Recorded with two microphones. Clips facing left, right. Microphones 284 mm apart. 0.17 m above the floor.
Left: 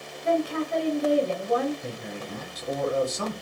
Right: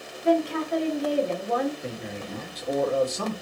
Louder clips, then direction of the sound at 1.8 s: Right 1 dB; 10° left (ahead or behind).